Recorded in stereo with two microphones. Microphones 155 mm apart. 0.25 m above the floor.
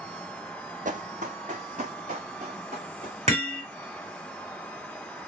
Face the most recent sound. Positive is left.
turn(degrees=-45)  # may be behind; listen again after turning